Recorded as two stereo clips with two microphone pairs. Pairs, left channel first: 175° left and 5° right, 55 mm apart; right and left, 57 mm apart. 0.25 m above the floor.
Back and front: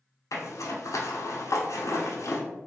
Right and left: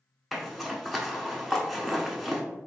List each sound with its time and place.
0.3 s a zipper: straight behind, 0.6 m